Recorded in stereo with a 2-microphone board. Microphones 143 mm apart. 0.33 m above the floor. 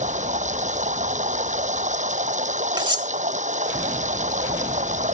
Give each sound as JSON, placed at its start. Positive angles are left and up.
{"t": 0.0, "sound": "running water", "side_deg": -60}
{"t": 2.8, "sound": "cutlery clinking", "side_deg": -35}